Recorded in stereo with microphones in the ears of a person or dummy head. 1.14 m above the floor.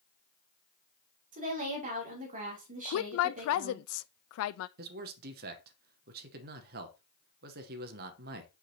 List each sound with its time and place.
1.3 s a woman speaking: 35° right (ahead or behind), 2.5 m
2.9 s a woman speaking: 75° left (ahead or behind), 0.5 m
4.8 s a man speaking: 50° right (ahead or behind), 0.9 m